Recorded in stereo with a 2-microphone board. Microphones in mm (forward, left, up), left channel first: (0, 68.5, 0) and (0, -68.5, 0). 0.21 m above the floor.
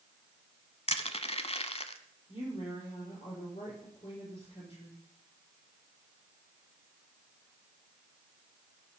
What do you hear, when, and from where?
0.9 s crushing: 50° left (ahead or behind), 0.9 m
2.3 s a woman speaking: 45° left (ahead or behind), 7.5 m